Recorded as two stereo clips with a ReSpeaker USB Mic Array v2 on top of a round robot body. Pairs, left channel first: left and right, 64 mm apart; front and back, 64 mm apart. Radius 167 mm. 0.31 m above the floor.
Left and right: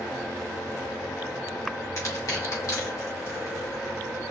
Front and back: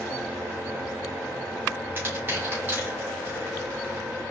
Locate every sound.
2.0 s crushing: 125° left, 4 m